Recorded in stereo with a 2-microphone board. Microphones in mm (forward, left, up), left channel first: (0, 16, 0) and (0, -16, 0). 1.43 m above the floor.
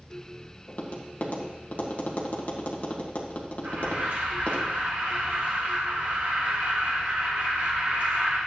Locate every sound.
0.7 s tapping: 55° left (ahead or behind), 1.6 m
3.6 s an alarm: 70° right (ahead or behind), 5 m